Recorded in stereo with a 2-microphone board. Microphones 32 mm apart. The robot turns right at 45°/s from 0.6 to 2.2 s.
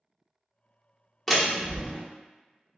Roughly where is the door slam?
Behind.